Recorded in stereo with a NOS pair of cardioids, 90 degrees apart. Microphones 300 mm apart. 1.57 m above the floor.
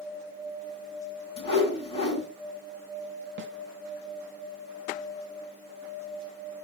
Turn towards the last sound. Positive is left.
turn(degrees=-40)